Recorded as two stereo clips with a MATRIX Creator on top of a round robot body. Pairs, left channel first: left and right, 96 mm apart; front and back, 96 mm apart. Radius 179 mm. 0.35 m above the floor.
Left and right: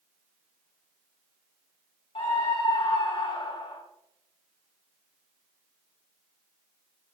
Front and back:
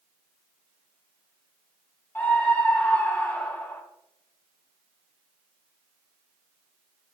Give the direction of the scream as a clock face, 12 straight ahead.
10 o'clock.